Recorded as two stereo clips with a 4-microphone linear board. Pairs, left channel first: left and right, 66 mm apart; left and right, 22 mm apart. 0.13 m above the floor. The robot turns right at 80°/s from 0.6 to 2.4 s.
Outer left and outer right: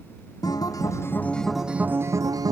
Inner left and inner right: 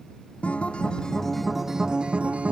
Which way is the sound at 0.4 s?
105° left.